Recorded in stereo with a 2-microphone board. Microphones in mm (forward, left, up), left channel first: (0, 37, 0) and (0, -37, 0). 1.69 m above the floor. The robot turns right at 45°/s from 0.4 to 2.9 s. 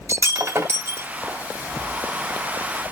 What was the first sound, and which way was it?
Breaking glass, 80° right.